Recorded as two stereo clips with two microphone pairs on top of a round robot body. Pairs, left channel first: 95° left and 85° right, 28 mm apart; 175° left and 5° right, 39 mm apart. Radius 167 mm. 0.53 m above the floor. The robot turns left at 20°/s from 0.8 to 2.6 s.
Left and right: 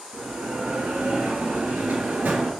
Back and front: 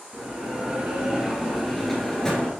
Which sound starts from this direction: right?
A bell, at 0.1 s.